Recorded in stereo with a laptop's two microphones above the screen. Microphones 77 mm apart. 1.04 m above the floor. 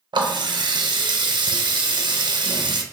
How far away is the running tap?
About 0.5 m.